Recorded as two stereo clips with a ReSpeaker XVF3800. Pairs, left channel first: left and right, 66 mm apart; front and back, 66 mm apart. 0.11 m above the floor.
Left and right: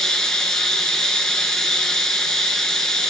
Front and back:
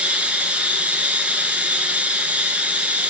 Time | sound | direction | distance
0.0 | running water | 150° left | 0.9 m